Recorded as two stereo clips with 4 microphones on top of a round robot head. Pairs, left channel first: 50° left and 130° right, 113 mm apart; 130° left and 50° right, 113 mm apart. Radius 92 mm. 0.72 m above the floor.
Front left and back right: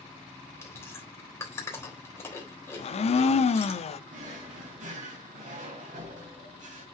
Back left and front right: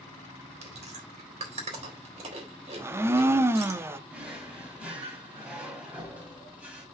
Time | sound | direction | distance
0.6 | chewing | 20° right | 3.5 m
2.8 | a blender | 20° left | 0.7 m
4.1 | a drawer | 125° right | 3.5 m